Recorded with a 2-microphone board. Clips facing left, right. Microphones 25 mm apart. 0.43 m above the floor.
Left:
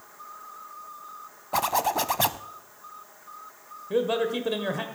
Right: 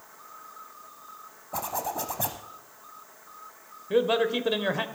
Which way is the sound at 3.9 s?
20° right (ahead or behind).